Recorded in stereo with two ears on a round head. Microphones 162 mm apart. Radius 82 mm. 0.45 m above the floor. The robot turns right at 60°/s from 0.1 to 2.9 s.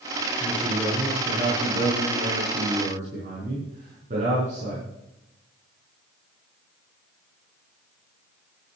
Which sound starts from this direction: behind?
A man speaking, at 0.4 s.